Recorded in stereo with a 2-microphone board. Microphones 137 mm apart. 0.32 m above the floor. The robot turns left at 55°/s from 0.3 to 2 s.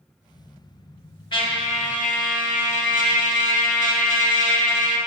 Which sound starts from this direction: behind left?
A trumpet, at 1.3 s.